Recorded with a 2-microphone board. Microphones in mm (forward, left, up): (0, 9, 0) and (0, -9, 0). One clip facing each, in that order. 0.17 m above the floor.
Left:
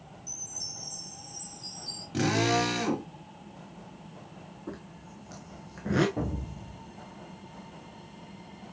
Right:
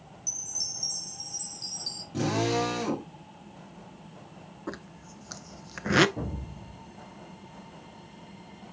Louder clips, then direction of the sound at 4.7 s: Right 3 dB; 65° right (ahead or behind).